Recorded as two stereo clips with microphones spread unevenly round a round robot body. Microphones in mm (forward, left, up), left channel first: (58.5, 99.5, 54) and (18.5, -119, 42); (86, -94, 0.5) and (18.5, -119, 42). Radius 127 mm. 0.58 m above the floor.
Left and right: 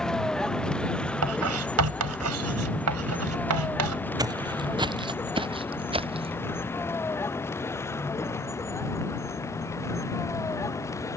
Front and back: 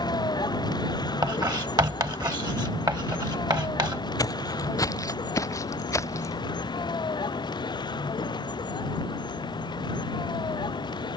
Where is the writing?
120° right.